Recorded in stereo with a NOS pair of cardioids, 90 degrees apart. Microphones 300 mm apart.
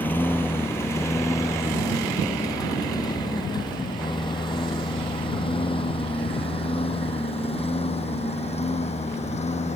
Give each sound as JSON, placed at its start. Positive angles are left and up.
{"t": 0.0, "sound": "a lawn mower", "azimuth_deg": 5}